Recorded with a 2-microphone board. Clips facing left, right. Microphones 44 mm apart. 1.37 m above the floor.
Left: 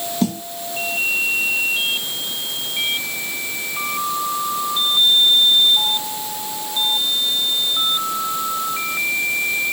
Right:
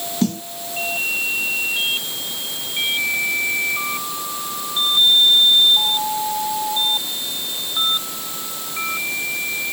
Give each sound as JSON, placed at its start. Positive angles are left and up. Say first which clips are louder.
{"t": 0.2, "sound": "a snare drum", "louder": "right 1 dB", "side_deg": 10}